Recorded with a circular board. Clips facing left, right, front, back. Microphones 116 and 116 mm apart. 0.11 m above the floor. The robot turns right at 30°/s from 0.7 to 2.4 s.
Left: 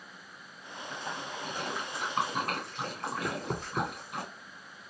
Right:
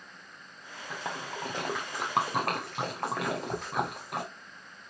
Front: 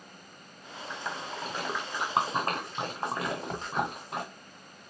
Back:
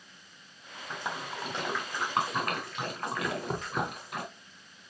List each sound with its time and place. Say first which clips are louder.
0.9 s a splash: right 2 dB, back 1 dB; 105° right, 2 m; by 4.2 s 60° right, 2 m
3.2 s knocking: right 2 dB, back 1 dB; 125° left, 2.5 m